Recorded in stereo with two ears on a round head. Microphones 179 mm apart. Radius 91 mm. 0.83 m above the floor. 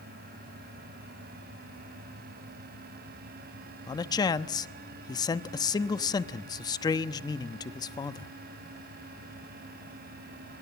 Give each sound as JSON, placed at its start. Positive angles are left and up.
{"t": 3.9, "sound": "a man speaking", "side_deg": 20, "distance_m": 0.9}